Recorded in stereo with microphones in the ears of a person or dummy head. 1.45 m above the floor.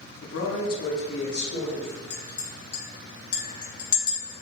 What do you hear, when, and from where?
0.2 s a man speaking: 60° left (ahead or behind), 0.6 m; by 2.0 s 50° left (ahead or behind), 1.4 m
2.1 s a clink: 50° left (ahead or behind), 0.6 m